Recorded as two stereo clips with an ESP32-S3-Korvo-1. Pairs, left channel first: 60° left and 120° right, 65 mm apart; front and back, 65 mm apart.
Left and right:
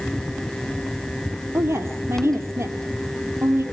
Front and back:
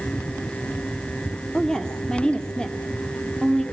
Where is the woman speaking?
75° right, 2.5 m.